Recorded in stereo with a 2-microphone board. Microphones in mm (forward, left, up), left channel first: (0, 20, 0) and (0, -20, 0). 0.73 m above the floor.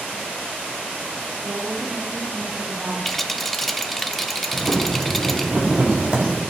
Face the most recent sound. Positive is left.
turn(degrees=-25)  # may be behind; listen again after turning